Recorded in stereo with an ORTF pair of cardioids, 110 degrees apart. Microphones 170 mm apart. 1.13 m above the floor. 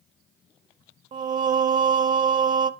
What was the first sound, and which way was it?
Singing, 50° right.